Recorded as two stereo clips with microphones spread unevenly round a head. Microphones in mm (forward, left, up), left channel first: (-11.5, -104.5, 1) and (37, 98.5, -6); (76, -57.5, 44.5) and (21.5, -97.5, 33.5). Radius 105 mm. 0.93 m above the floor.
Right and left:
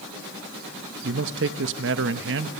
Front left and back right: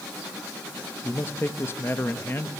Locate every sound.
1.0 s a man speaking: 105° left, 0.9 m